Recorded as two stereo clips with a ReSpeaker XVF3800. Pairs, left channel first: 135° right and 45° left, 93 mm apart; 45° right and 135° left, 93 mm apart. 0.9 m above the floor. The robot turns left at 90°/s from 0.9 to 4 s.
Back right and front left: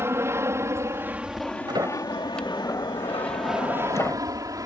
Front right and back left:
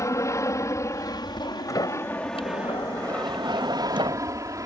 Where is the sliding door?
10° left; by 4.2 s 160° left.